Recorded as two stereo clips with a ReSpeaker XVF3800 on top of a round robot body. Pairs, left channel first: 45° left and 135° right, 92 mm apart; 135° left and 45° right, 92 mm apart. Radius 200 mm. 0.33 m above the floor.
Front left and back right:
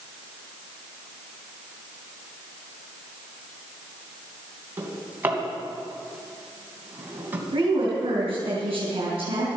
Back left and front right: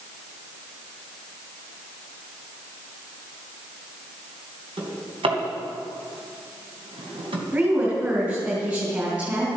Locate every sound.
4.8 s a drawer: 65° right, 2.5 m
7.5 s a woman speaking: 110° right, 3.5 m